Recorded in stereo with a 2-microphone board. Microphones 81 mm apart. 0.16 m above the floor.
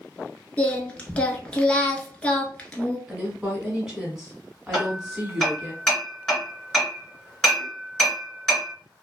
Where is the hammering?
5° left (ahead or behind), 1.9 m.